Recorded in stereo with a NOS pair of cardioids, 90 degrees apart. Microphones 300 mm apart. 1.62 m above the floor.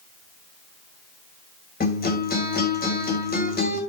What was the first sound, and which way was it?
A guitar, 30° left.